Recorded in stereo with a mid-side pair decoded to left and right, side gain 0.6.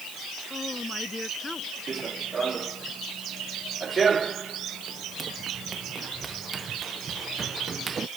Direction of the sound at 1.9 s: 30° right.